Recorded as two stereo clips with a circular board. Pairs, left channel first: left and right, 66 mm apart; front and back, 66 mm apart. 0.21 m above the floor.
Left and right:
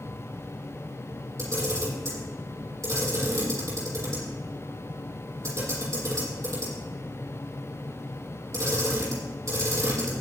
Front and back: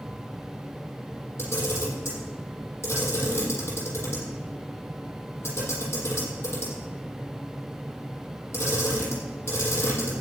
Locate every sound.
1.4 s a camera shutter: 50° right, 8.5 m